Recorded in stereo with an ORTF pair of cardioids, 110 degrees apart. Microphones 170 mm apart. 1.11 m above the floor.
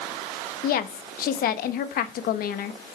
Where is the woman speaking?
60° left, 1.2 m.